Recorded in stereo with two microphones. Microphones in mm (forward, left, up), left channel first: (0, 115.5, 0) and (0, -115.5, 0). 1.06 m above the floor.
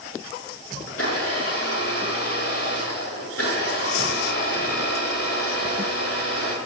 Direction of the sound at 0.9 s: 65° left (ahead or behind).